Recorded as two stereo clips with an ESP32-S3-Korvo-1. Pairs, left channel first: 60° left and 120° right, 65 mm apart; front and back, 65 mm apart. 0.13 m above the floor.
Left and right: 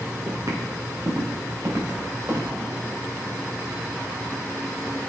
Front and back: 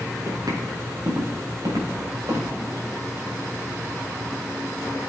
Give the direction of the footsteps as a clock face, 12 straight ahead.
5 o'clock.